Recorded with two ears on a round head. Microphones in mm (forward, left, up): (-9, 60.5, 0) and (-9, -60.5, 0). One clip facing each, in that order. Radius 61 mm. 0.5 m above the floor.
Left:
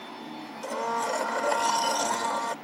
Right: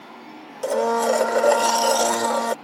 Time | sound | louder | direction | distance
0.6 | a blender | right 10 dB | 65° right (ahead or behind) | ?